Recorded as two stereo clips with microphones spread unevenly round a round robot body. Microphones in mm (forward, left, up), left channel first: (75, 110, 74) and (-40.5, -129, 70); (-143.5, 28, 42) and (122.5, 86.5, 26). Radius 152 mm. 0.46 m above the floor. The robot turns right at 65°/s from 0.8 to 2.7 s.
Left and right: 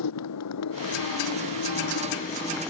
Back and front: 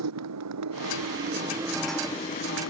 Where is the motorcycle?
40° left; by 2.7 s 155° left.